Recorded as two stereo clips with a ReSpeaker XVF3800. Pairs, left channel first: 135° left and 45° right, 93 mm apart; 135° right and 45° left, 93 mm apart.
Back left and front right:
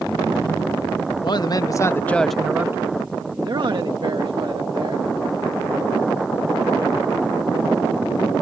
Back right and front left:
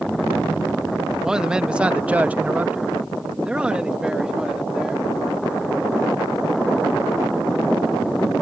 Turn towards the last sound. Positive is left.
turn(degrees=-35)